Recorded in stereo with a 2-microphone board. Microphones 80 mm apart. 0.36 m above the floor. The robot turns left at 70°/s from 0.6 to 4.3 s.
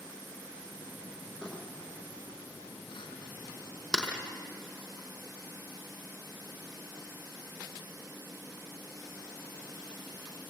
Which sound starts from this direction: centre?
Crumpling, at 1.4 s.